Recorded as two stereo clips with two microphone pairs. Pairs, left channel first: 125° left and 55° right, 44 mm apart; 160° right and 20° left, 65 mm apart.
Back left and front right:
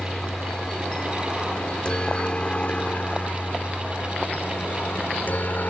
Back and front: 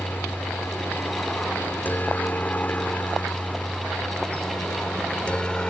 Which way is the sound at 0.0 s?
165° right.